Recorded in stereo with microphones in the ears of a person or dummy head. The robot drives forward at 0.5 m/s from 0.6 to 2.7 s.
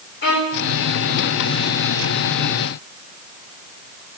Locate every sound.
0.2 s a violin: 60° left (ahead or behind), 7 m